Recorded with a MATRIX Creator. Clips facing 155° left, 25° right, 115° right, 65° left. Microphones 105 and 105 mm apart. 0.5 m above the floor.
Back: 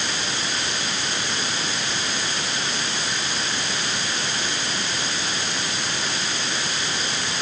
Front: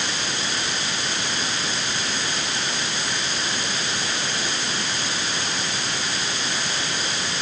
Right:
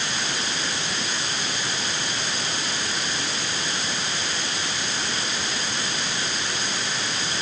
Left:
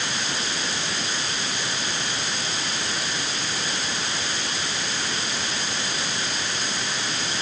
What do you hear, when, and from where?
Only background noise.